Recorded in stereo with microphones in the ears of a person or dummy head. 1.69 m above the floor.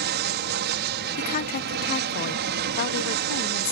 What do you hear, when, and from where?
0.0 s an aircraft: 60° right (ahead or behind)
1.2 s a woman speaking: 45° left (ahead or behind)